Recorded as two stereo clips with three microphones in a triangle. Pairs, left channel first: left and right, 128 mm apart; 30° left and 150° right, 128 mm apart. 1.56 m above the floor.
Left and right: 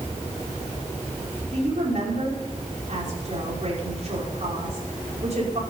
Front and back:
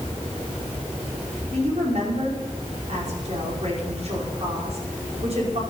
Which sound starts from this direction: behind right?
A woman speaking, at 1.5 s.